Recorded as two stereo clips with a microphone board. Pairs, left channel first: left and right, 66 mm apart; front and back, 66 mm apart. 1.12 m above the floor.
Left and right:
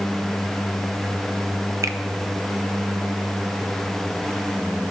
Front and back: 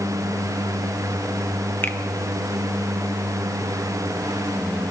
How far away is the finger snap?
About 0.8 m.